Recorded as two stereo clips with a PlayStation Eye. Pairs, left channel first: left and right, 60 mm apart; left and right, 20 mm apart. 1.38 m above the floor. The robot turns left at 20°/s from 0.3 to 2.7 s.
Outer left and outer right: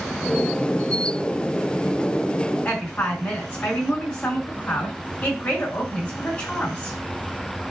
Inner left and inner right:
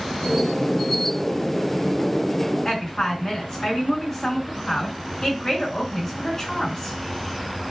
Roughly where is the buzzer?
No buzzer in this recording.